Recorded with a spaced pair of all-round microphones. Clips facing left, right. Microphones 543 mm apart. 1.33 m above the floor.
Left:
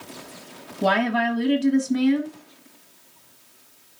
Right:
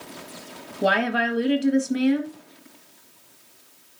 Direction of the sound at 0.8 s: 20° left (ahead or behind).